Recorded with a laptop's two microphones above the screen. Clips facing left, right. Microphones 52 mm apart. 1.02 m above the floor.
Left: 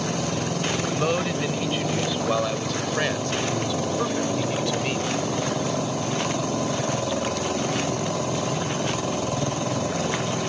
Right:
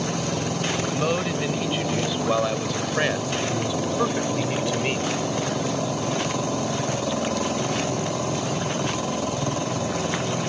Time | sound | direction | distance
0.9 | a man speaking | centre (ahead or behind) | ?